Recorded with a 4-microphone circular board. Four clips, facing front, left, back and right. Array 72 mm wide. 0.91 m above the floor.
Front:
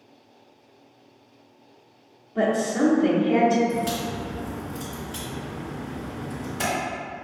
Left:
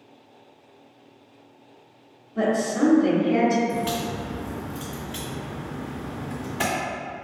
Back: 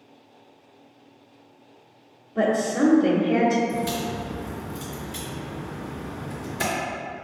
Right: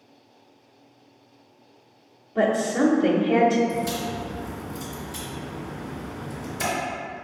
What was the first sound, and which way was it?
A woman speaking, 55° right.